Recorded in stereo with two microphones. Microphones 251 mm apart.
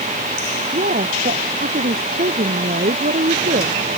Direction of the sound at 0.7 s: 35° right (ahead or behind).